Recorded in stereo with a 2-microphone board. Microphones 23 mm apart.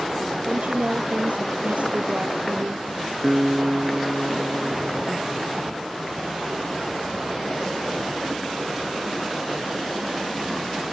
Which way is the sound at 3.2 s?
5° right (ahead or behind).